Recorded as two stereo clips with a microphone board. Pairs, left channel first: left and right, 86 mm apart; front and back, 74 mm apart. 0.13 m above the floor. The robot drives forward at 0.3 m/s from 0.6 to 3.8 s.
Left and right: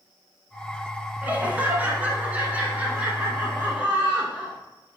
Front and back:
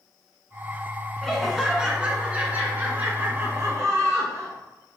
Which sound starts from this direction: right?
Laughter, at 1.2 s.